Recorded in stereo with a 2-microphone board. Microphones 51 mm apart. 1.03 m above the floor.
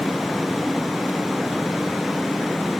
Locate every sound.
Only background noise.